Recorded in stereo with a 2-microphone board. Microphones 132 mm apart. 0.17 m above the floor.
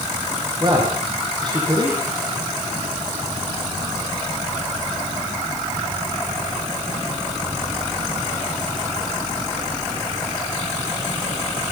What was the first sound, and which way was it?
A man speaking, 35° right (ahead or behind).